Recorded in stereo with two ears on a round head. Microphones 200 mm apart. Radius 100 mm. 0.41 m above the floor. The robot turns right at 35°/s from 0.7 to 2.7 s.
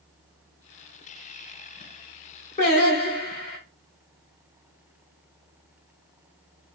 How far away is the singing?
About 1.4 m.